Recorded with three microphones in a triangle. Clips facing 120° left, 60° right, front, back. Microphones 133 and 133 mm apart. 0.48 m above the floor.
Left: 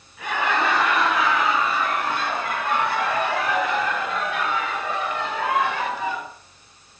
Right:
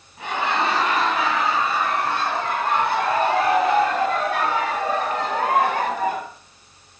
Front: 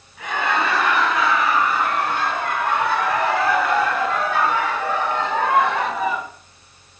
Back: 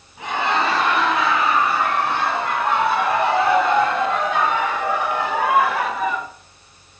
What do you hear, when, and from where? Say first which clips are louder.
0.2 s laughter: even, back 1 dB; 120° right, 6 m; by 6.3 s 80° right, 1.4 m